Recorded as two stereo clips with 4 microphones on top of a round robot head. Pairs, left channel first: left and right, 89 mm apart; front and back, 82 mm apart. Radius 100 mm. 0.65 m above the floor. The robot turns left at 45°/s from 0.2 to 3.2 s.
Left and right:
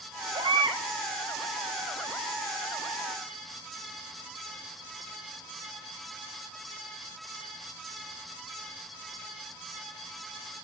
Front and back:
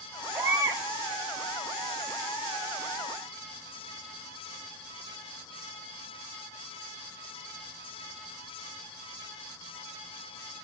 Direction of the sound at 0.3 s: 110° right.